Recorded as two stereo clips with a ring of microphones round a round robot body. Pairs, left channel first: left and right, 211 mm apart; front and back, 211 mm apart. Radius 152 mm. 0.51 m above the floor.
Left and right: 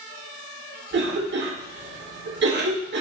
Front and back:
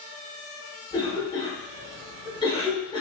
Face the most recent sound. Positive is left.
turn(degrees=-70)